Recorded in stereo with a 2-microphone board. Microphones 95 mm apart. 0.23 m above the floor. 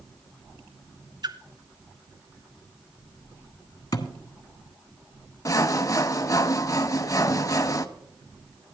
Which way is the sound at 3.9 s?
40° left (ahead or behind).